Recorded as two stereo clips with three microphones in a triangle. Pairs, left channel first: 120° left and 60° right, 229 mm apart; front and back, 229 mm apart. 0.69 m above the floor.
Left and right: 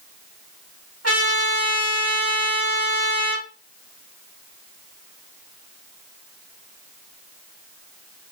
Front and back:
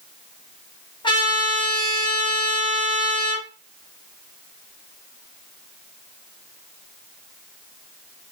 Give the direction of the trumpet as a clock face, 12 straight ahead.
2 o'clock.